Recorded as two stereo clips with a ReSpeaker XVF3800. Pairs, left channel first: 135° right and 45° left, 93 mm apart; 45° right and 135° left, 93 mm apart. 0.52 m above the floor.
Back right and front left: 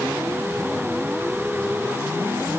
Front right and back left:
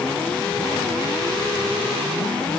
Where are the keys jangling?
No keys jangling in this recording.